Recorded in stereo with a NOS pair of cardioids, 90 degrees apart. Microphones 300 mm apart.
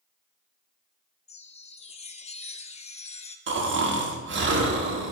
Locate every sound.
1.3 s a chime: 20° left, 0.5 m
3.5 s snoring: 40° right, 1.2 m